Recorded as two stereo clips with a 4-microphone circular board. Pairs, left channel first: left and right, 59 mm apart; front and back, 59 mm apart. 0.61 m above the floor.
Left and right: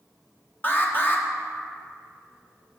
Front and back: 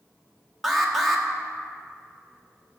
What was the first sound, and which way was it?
An alarm, 90° left.